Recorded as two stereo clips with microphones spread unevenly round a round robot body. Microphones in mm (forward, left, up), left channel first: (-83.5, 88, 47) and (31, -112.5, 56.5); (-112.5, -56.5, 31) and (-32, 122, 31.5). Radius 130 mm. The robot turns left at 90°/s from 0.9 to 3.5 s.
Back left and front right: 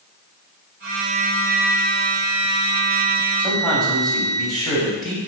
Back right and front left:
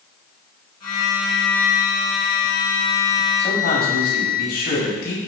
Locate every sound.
0.8 s a flute: 30° right, 3 m; by 4.4 s 95° left, 3 m
3.4 s a man speaking: 140° right, 6 m; by 5.2 s 150° right, 6 m